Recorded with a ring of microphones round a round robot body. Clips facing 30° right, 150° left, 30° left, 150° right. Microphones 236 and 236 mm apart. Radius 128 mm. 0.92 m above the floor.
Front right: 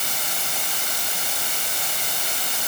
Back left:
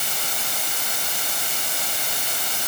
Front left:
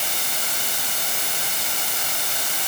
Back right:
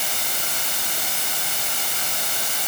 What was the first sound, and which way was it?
Only background noise.